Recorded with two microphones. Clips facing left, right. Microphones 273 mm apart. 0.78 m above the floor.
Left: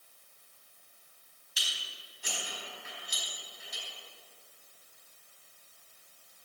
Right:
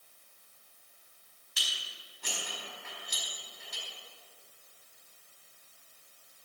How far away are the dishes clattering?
About 4.5 m.